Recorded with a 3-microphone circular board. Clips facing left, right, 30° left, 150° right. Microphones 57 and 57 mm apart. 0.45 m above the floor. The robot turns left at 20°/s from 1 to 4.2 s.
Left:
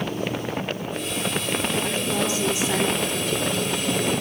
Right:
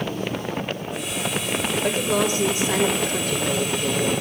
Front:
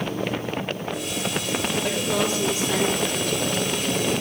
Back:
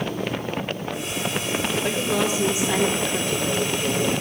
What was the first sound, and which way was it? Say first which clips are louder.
A woman speaking: right 3 dB, back 1 dB; 65° right.